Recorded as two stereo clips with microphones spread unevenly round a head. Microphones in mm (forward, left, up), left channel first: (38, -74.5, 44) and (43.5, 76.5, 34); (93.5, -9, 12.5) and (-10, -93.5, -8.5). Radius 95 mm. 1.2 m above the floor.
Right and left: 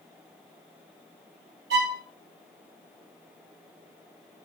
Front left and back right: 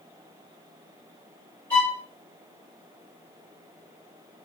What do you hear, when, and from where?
1.7 s a violin: 110° left, 1.3 m